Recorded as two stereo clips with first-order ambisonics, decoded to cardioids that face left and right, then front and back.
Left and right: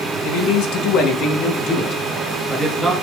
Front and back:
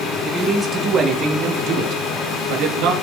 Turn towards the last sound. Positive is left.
turn(degrees=-175)